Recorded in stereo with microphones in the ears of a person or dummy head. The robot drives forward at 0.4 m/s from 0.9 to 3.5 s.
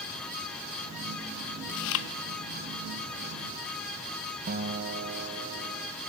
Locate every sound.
1.7 s chewing: 65° left (ahead or behind), 0.8 m; by 2.1 s 70° left (ahead or behind), 0.7 m
4.5 s a guitar: 50° right (ahead or behind), 0.7 m